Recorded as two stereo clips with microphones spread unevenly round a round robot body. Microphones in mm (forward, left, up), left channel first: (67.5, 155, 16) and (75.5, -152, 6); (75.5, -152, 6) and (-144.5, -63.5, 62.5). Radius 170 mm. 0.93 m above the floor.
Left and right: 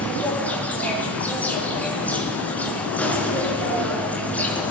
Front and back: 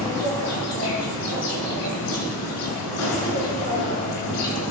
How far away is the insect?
About 6 m.